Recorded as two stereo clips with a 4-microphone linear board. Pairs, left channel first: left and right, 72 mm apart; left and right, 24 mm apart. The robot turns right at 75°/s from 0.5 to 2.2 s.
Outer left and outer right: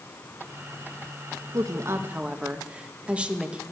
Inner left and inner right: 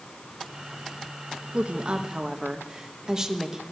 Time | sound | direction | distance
1.5 | a woman speaking | 65° right | 1.2 m